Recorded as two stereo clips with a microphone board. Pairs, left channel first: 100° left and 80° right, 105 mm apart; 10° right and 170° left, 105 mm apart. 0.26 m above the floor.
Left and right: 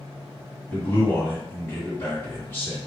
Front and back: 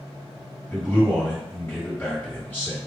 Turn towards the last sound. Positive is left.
turn(degrees=50)